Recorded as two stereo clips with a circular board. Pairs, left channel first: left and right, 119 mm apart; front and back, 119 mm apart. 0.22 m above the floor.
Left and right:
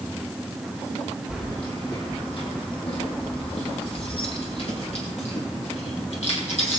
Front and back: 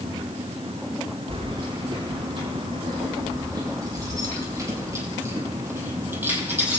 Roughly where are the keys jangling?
Behind left.